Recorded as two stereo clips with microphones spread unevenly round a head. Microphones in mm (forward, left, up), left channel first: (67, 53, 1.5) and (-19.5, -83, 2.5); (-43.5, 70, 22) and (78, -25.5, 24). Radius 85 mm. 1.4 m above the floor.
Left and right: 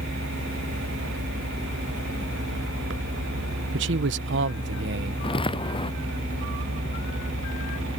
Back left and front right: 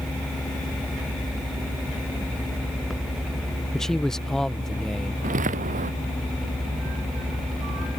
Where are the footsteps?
Straight ahead.